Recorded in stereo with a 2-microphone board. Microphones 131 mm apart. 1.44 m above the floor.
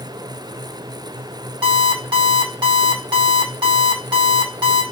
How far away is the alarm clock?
About 2.0 m.